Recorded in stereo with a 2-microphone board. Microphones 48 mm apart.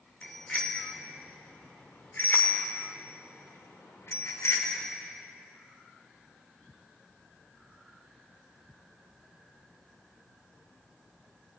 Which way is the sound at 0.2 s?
25° left (ahead or behind).